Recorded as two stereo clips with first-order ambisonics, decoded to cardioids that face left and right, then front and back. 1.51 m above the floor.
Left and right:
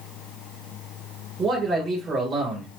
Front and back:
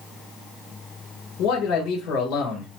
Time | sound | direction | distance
1.4 | a man speaking | 30° right | 1.7 m